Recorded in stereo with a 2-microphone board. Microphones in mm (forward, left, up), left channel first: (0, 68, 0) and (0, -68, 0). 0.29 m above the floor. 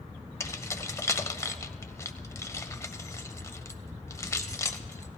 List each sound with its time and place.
0.4 s keys jangling: 20° left (ahead or behind), 0.7 m